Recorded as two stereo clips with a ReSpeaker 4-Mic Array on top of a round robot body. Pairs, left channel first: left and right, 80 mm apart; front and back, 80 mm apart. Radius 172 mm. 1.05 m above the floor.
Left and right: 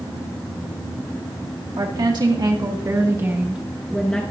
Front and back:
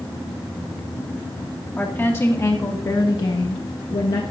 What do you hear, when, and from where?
1.8 s a woman speaking: 65° right, 2 m; by 4.2 s 15° left, 1.2 m